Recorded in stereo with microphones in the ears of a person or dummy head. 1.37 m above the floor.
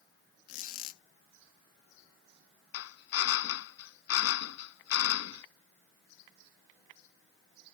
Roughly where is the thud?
No thud in this recording.